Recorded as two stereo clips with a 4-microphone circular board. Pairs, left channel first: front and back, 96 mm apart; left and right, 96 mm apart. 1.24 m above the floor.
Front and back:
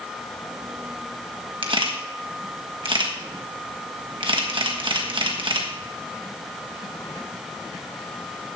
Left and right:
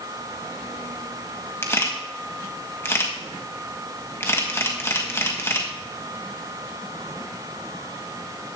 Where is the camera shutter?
155° left, 1.5 m.